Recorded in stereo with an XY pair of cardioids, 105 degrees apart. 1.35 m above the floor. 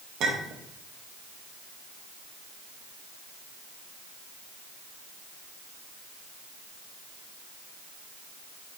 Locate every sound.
0.2 s a clink: 70° right, 1.3 m